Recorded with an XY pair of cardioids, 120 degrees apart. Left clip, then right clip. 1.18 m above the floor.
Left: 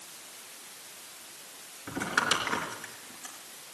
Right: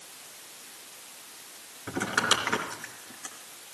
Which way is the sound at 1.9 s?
20° right.